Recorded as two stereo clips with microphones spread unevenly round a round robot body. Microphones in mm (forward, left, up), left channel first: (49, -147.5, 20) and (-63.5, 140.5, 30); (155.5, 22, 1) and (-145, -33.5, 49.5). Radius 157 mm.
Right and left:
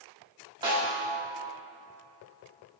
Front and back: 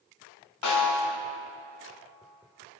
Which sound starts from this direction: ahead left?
A snare drum, at 0.6 s.